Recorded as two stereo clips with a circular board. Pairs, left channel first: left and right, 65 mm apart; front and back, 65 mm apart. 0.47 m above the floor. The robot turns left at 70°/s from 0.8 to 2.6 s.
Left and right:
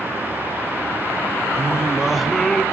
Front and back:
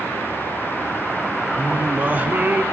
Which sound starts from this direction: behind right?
Singing, at 1.6 s.